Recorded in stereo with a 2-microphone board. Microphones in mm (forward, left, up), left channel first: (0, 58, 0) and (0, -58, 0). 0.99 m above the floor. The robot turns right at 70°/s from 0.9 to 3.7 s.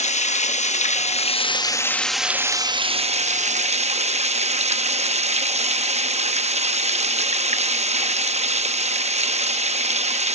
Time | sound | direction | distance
0.0 | running water | 90° left | 0.7 m